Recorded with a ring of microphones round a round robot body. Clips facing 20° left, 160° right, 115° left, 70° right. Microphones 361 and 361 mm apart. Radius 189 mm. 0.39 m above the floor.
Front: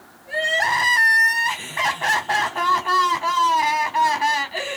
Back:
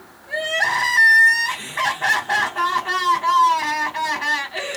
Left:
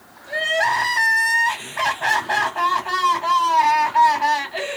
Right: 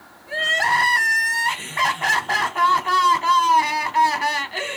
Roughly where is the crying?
Ahead right.